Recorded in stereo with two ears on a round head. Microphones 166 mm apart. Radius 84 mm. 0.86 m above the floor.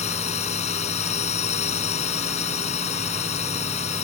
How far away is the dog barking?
No dog barking in this recording.